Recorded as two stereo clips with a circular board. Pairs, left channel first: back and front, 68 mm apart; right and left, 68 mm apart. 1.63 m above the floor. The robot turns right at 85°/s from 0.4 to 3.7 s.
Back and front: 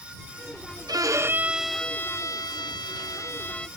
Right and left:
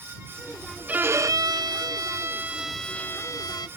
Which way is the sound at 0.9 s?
20° left.